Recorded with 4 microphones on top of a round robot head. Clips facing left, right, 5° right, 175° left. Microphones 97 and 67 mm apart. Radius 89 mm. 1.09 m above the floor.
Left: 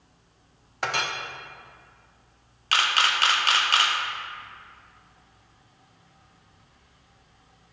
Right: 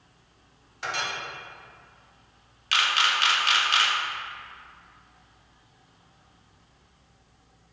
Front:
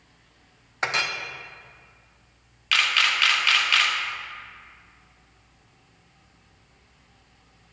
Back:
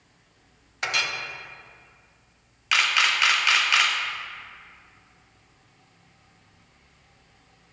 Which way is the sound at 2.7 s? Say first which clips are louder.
Left 1 dB, back 1 dB; 110° left.